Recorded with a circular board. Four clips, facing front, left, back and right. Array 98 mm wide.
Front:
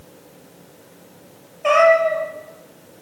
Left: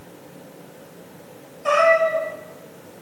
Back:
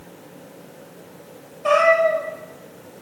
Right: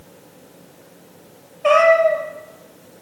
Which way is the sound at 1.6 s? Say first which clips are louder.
Right 4 dB, front 2 dB; 55° right.